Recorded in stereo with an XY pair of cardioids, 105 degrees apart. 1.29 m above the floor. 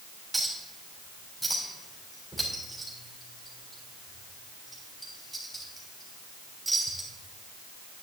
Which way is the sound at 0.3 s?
5° right.